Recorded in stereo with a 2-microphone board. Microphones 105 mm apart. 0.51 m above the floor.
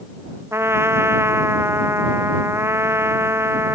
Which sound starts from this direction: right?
A trumpet, at 0.5 s.